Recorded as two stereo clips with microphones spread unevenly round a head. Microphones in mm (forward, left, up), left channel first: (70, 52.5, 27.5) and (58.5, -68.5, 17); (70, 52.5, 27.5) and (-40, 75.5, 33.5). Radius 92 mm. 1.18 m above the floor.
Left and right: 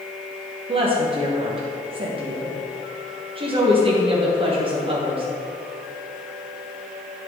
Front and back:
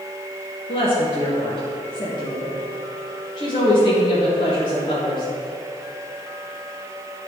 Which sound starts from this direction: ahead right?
A woman speaking, at 0.7 s.